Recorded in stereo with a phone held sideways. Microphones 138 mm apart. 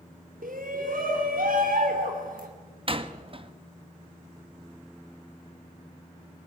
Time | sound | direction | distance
0.4 | a shout | 85° right | 3 m
2.9 | a door slam | 40° right (ahead or behind) | 1.3 m